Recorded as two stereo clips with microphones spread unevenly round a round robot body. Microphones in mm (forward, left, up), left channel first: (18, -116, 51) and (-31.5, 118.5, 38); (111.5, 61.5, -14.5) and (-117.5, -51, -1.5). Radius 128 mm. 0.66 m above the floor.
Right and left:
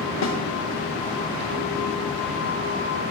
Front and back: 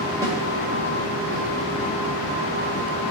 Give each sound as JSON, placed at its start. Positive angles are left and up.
{"t": 0.2, "sound": "a snare drum", "azimuth_deg": -75, "distance_m": 2.0}